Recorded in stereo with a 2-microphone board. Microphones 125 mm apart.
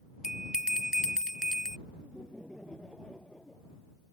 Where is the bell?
5° right (ahead or behind).